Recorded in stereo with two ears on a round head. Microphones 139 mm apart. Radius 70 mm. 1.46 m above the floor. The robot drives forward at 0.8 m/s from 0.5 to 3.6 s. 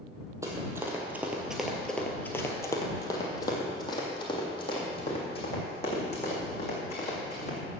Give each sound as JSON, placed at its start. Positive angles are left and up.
{"t": 0.4, "sound": "running footsteps", "side_deg": -20, "distance_m": 2.0}